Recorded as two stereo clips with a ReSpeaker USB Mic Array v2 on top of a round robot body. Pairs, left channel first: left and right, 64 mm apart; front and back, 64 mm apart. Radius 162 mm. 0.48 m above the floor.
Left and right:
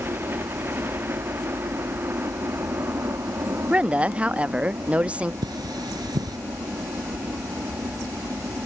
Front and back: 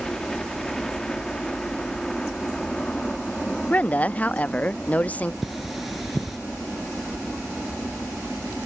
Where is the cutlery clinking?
95° right.